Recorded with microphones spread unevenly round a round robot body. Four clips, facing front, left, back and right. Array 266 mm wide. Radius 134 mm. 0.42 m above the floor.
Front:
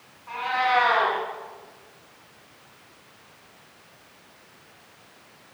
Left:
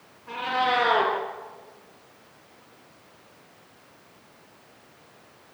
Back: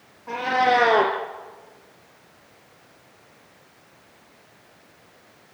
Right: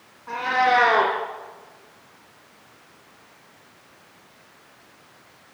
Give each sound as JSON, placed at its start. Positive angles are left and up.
{"t": 0.3, "sound": "a cat meowing", "azimuth_deg": -175, "distance_m": 4.0}